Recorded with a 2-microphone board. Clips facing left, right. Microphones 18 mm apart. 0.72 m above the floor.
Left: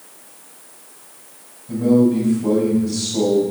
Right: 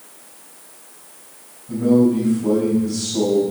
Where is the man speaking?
35° left (ahead or behind), 4.5 m.